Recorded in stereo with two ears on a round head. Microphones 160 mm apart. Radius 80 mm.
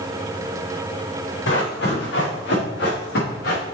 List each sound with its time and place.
1.5 s running footsteps: 75° left (ahead or behind), 4 m; by 3.6 s 65° left (ahead or behind), 4 m